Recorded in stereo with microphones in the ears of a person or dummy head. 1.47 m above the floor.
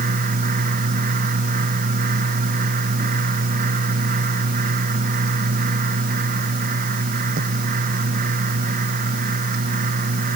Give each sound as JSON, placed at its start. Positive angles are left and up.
{"t": 0.0, "sound": "a fan", "side_deg": -45}